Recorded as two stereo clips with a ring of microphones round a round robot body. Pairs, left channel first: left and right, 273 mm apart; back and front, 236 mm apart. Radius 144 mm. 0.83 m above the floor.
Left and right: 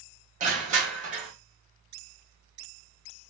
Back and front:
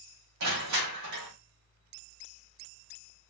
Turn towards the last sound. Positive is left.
turn(degrees=-25)